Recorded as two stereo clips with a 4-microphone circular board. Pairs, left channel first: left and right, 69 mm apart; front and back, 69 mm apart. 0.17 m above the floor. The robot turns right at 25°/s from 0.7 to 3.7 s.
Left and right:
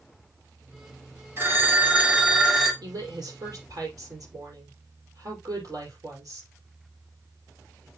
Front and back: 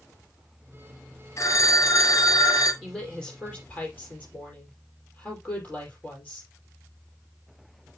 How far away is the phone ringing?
About 2 m.